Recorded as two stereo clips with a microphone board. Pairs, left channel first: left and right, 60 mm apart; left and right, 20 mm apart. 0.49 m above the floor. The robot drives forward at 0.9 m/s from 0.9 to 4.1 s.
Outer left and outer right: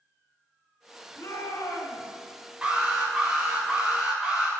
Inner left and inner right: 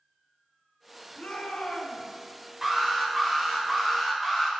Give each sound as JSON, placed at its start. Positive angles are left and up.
{"t": 1.2, "sound": "a shout", "side_deg": 70, "distance_m": 3.5}
{"t": 2.6, "sound": "an alarm", "side_deg": -20, "distance_m": 3.0}